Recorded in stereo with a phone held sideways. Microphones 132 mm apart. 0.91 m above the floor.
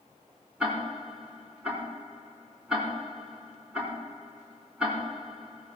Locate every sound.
0.6 s ticking: 10° right (ahead or behind), 4.5 m